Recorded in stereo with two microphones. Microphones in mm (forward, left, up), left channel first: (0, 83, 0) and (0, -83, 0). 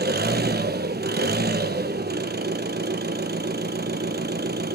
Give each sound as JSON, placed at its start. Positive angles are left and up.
{"t": 0.0, "sound": "an engine running", "side_deg": -75, "distance_m": 0.8}